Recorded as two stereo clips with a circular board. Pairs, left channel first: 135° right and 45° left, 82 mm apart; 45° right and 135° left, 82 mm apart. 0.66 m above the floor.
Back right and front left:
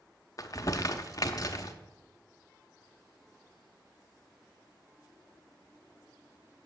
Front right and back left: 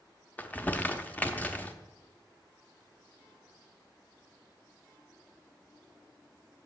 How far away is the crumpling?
About 0.6 m.